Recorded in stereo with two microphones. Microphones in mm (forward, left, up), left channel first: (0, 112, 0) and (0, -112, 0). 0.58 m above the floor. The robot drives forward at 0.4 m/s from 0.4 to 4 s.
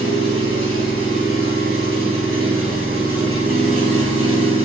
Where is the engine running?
70° right (ahead or behind), 4 m; by 4.6 s 80° right, 4 m.